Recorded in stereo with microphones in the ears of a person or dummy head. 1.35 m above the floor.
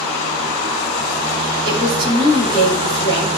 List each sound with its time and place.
1.6 s a woman speaking: 25° right (ahead or behind), 3.5 m